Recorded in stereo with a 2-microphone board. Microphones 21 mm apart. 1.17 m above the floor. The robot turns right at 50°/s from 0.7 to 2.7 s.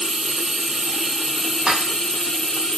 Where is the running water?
40° right, 1.1 m; by 2.8 s 60° left, 1.1 m.